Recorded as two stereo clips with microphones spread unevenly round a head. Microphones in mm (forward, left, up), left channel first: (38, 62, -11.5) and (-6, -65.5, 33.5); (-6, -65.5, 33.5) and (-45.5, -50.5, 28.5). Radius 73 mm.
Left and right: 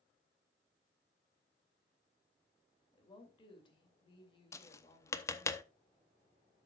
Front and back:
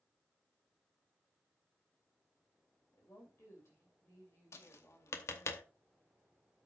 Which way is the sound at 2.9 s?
15° left.